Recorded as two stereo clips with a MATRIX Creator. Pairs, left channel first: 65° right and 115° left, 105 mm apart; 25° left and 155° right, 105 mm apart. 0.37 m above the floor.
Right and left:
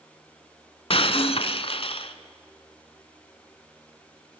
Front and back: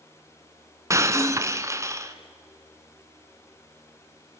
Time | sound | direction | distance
0.9 | breaking glass | 95° right | 1.0 m